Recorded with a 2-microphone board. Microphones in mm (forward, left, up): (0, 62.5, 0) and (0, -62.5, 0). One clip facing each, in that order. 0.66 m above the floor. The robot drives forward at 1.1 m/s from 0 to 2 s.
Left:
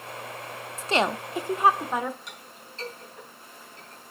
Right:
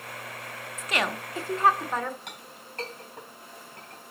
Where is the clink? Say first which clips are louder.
Right 1 dB; 65° right (ahead or behind), 3.5 m.